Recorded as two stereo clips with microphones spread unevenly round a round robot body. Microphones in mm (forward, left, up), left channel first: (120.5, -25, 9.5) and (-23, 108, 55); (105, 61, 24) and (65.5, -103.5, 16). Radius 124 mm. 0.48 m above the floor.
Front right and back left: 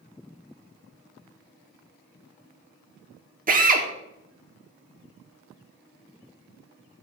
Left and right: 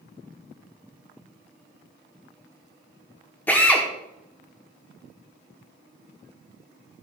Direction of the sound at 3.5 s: 150° left.